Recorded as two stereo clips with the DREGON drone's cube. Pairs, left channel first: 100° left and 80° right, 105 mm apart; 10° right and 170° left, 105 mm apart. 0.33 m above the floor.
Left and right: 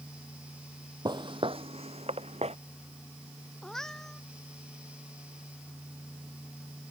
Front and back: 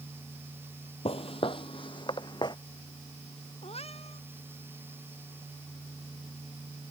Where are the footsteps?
30° right; by 2.6 s 60° right.